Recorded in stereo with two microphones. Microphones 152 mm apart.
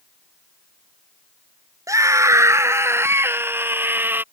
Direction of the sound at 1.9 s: 20° right (ahead or behind).